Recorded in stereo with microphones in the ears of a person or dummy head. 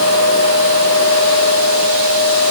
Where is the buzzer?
I don't hear a buzzer.